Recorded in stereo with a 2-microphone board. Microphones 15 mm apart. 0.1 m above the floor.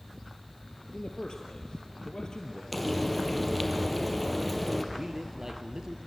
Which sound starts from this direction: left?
A man speaking, at 0.9 s.